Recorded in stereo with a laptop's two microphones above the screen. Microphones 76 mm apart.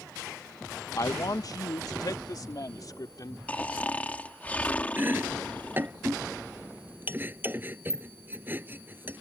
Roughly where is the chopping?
Right.